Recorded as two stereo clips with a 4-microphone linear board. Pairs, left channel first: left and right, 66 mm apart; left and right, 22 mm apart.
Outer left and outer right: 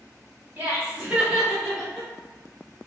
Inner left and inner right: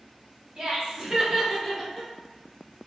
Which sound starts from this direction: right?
Laughter, at 0.6 s.